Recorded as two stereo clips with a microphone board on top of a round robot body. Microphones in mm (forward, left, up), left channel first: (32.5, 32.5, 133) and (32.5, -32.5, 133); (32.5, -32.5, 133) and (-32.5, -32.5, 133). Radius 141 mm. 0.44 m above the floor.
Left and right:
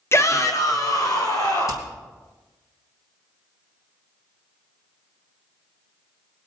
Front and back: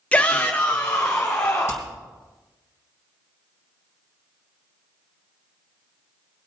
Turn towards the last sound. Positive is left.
turn(degrees=55)